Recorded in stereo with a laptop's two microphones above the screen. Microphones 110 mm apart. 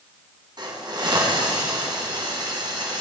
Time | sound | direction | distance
0.6 | a hiss | 40° right (ahead or behind) | 2.5 m